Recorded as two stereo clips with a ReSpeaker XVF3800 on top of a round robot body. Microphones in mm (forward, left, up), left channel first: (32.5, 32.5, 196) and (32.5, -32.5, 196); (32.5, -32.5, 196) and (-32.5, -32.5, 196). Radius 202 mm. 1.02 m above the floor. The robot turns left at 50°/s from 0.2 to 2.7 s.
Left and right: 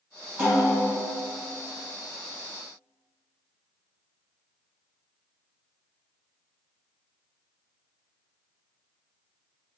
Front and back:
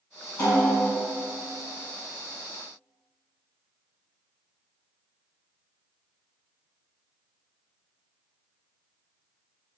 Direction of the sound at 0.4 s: 35° right.